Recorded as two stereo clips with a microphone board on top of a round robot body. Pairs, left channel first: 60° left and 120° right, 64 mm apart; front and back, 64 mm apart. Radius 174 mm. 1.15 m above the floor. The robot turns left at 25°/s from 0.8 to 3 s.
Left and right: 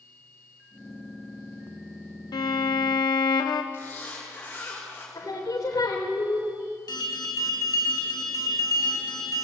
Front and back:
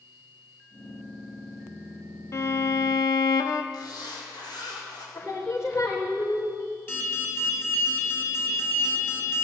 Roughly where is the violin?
Ahead left.